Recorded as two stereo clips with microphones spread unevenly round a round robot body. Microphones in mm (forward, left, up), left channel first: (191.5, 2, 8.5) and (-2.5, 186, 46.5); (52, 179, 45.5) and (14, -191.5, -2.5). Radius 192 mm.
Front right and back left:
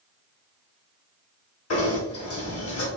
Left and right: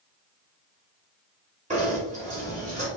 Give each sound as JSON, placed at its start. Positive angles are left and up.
{"t": 1.7, "sound": "knocking", "azimuth_deg": -30, "distance_m": 2.0}